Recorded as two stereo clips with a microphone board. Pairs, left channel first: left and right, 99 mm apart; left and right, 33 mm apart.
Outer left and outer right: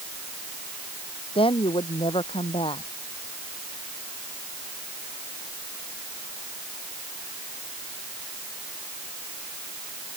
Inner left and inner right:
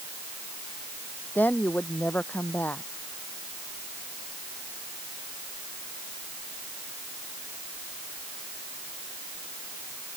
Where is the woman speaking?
65° left (ahead or behind).